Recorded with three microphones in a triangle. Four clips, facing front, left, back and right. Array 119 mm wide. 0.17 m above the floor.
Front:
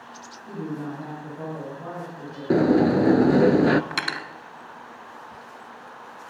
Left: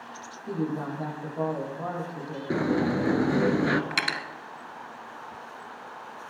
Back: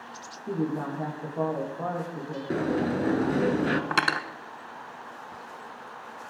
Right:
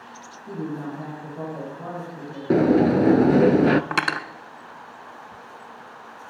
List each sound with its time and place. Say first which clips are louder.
0.5 s a woman speaking: left 1 dB, back 3 dB; 160° left, 6.5 m
2.5 s a sliding door: right 8 dB, front 9 dB; 50° right, 0.7 m
3.9 s cutlery clinking: right 6 dB, back 4 dB; 120° right, 0.9 m